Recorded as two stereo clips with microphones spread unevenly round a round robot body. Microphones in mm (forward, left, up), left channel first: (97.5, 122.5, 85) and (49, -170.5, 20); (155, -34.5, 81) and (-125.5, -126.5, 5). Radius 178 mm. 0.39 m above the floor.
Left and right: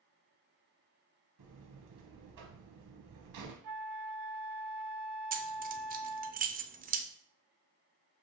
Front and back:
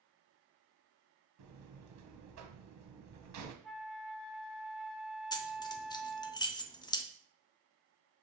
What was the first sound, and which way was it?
A buzzer, 130° right.